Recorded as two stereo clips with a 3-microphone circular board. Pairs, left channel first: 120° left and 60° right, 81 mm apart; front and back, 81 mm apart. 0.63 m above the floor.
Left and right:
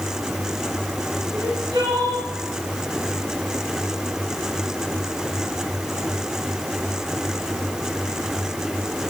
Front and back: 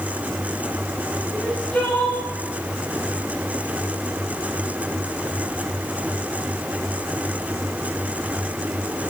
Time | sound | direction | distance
1.3 | crying | 70° right | 4.5 m